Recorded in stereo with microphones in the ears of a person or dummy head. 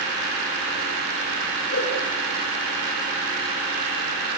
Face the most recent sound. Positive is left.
turn(degrees=60)  # may be behind; listen again after turning